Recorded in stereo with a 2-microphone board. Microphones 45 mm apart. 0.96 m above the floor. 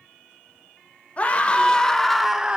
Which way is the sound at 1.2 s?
30° left (ahead or behind).